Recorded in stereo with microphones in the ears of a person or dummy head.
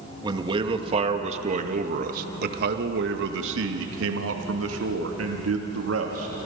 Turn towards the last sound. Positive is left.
turn(degrees=-75)  # may be behind; listen again after turning